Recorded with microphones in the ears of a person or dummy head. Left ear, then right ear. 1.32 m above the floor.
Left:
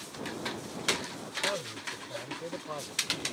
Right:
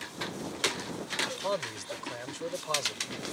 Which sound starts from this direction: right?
A man speaking, at 1.2 s.